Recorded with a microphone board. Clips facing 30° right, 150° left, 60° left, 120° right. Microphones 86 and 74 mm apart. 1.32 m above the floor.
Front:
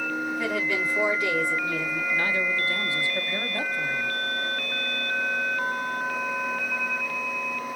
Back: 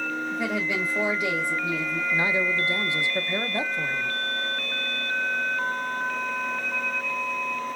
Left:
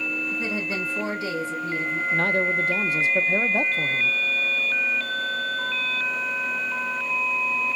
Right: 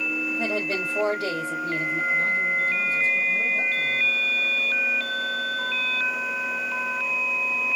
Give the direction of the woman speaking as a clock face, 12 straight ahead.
5 o'clock.